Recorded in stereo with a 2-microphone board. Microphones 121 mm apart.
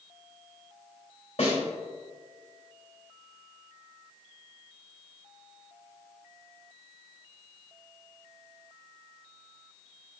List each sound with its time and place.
1.4 s a snare drum: 60° left (ahead or behind), 3.5 m